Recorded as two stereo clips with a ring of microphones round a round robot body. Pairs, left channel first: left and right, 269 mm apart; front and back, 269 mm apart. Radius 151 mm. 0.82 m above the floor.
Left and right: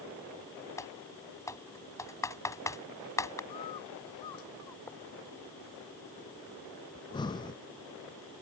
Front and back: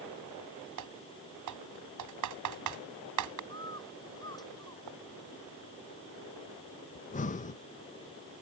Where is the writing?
170° left.